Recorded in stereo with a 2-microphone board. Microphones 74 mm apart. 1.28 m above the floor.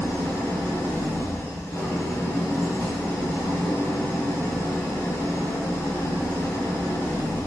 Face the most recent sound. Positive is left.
turn(degrees=35)  # may be behind; listen again after turning